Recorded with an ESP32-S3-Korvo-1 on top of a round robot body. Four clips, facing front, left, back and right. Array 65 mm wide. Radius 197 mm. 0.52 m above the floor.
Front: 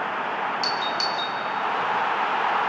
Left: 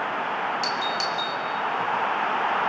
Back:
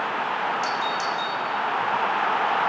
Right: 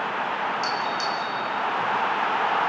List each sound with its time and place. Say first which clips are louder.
0.6 s a doorbell: right 1 dB, back 1 dB; 40° left, 3 m